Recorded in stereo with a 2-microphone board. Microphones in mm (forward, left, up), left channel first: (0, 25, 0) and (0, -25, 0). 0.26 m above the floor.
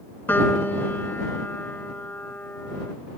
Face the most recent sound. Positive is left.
turn(degrees=45)  # may be behind; listen again after turning